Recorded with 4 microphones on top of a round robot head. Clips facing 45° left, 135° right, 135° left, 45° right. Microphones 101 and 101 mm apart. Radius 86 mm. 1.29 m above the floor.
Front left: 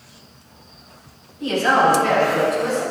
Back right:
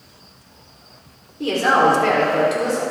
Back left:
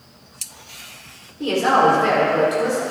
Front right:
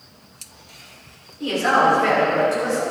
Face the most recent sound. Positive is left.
turn(degrees=-145)